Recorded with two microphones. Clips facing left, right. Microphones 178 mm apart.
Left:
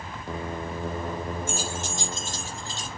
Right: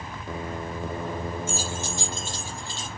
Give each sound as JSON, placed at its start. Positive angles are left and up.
{"t": 1.5, "sound": "keys jangling", "side_deg": 50, "distance_m": 3.0}